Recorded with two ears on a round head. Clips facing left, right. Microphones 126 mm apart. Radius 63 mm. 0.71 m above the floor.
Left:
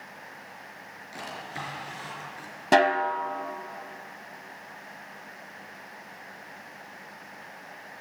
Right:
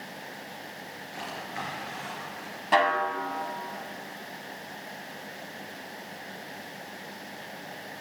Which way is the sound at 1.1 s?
40° left (ahead or behind).